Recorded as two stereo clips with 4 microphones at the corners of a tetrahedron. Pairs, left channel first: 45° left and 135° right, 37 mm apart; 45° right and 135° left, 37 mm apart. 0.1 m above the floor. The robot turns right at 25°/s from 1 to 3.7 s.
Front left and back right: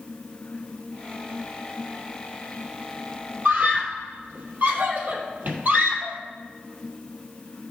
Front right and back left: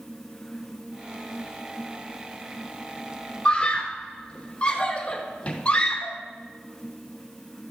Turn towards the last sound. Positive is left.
turn(degrees=-105)